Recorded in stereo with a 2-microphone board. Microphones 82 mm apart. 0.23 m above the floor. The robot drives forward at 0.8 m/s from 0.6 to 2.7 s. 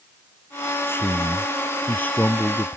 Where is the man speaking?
25° left (ahead or behind); by 2.8 s 20° left (ahead or behind).